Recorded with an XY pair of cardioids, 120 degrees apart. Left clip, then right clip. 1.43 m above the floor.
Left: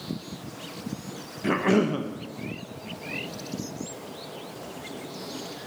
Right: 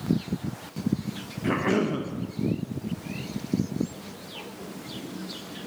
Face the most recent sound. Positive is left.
turn(degrees=15)